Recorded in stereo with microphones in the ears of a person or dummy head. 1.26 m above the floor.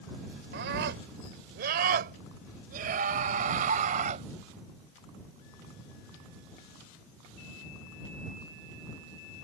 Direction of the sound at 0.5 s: 70° right (ahead or behind).